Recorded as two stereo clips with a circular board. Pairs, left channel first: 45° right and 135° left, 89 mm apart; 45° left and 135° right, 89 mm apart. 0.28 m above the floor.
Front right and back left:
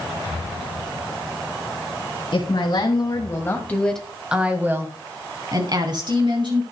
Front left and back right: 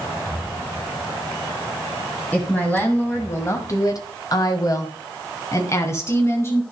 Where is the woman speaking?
30° right, 2.5 m; by 6.6 s 105° left, 4 m.